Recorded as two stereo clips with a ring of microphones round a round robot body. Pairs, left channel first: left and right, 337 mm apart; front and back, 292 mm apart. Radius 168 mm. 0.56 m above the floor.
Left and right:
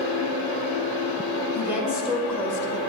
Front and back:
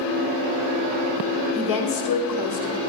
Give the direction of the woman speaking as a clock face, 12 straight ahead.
12 o'clock.